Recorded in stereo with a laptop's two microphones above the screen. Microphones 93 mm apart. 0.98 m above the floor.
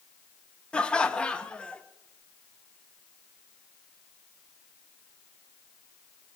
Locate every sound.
0.7 s laughter: 10° left (ahead or behind), 0.8 m